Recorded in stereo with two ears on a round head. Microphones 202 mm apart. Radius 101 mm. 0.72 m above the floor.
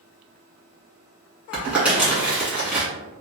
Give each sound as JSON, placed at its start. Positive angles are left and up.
{"t": 1.5, "sound": "crumpling", "side_deg": -5, "distance_m": 1.6}